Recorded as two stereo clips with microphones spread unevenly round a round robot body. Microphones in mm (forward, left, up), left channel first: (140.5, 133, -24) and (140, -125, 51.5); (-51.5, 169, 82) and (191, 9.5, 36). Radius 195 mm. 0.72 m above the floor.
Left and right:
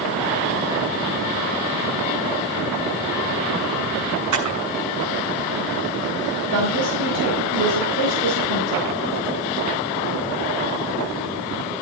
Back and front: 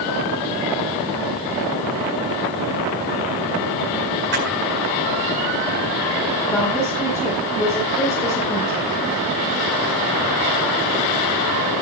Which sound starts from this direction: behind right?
A woman speaking, at 6.5 s.